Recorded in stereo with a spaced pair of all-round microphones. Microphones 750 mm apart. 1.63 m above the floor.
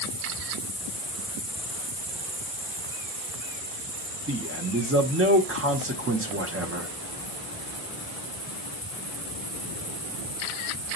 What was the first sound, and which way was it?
A man speaking, 20° right (ahead or behind).